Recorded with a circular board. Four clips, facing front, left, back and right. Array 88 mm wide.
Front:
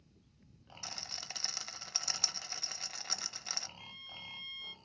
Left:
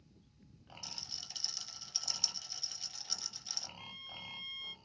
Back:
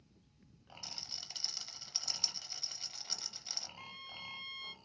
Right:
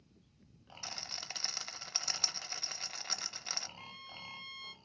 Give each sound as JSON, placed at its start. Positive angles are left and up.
{"t": 0.8, "sound": "a rattle", "azimuth_deg": -55, "distance_m": 0.6}
{"t": 3.8, "sound": "a violin", "azimuth_deg": -150, "distance_m": 0.8}